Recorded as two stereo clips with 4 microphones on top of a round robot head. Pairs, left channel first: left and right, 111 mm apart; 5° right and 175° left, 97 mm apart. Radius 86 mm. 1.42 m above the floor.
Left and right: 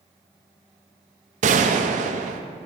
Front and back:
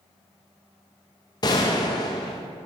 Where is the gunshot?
65° right, 0.5 m.